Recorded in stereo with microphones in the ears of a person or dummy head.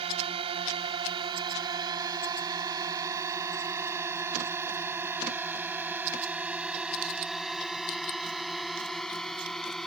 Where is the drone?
35° right (ahead or behind); by 9.9 s 5° left (ahead or behind).